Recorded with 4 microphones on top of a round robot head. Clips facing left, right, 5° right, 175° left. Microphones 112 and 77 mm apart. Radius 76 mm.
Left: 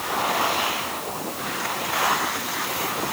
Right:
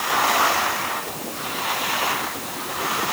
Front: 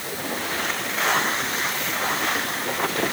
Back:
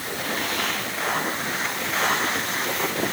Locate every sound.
Only background noise.